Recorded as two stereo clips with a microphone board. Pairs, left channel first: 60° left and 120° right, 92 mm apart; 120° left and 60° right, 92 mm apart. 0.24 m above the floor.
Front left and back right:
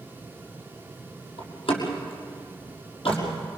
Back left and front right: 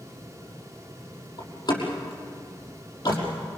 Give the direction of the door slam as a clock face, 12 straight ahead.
10 o'clock.